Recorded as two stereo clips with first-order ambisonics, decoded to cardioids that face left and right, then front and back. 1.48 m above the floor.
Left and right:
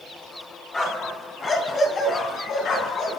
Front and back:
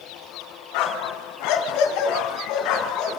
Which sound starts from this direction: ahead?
A dog barking, at 0.7 s.